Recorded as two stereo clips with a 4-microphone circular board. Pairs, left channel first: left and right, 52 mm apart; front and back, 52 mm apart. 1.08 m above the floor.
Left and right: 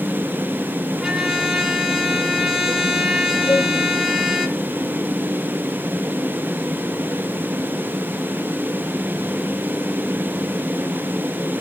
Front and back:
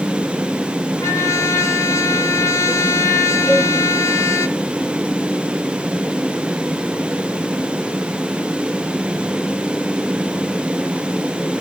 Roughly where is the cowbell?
Left.